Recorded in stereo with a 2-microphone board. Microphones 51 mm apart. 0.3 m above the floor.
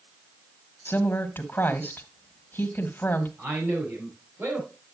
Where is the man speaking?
45° right (ahead or behind), 6.5 m.